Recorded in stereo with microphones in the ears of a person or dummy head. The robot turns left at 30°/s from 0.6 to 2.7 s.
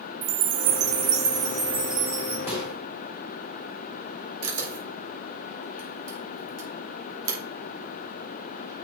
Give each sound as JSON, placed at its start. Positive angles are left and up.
{"t": 0.2, "sound": "a chime", "azimuth_deg": -120, "distance_m": 1.1}
{"t": 2.5, "sound": "a microwave", "side_deg": -10, "distance_m": 3.0}
{"t": 4.4, "sound": "a camera shutter", "side_deg": -80, "distance_m": 4.0}